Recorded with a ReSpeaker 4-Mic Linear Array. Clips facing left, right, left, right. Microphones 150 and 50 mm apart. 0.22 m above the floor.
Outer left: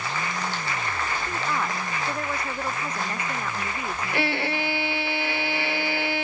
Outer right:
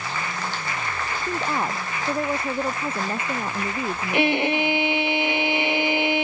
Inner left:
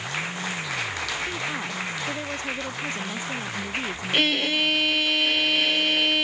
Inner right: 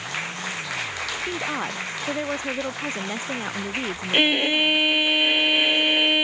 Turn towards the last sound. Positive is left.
turn(degrees=-20)  # may be behind; listen again after turning